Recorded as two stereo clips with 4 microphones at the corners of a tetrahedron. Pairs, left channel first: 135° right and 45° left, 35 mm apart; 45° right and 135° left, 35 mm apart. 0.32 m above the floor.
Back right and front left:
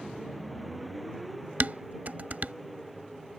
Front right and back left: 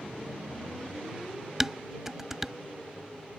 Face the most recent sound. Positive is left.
turn(degrees=60)